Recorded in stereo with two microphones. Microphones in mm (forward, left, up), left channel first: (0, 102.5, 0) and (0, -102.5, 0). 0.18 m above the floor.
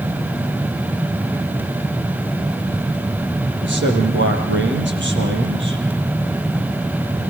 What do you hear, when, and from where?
3.6 s a man speaking: 65° right (ahead or behind), 5 m